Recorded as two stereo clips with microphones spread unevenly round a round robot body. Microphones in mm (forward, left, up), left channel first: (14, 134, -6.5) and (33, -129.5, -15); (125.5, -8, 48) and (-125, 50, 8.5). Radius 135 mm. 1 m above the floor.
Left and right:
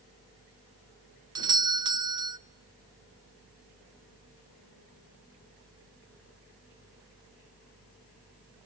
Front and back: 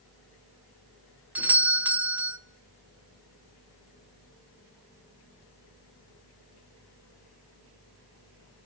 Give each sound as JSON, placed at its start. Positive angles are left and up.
{"t": 1.4, "sound": "a doorbell", "azimuth_deg": -135, "distance_m": 0.6}